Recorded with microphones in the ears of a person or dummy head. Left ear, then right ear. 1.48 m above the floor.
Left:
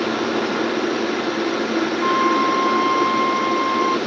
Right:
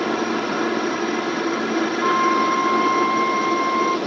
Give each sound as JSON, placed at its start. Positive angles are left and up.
{"t": 0.0, "sound": "a helicopter", "side_deg": -20}
{"t": 2.0, "sound": "a flute", "side_deg": -20}